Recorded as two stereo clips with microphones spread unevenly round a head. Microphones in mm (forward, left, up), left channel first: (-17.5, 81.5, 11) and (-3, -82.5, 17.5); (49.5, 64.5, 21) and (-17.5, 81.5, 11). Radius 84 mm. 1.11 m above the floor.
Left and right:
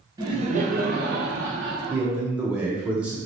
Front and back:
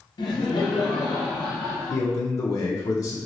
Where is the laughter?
15° right, 0.8 m; by 2.1 s 90° right, 1.5 m.